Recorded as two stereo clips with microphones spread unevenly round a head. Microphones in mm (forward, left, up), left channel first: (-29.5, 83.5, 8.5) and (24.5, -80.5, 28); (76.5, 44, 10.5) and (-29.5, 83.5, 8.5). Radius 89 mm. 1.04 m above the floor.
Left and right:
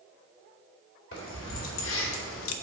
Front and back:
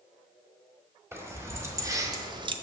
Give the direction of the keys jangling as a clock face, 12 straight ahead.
9 o'clock.